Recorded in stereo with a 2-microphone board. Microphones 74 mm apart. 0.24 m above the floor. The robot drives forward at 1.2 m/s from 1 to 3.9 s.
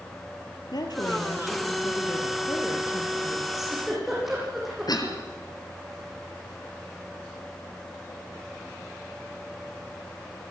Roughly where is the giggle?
Centre.